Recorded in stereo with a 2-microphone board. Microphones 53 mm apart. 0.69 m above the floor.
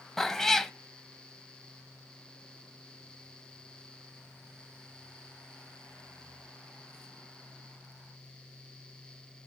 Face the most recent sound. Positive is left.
turn(degrees=5)  # may be behind; listen again after turning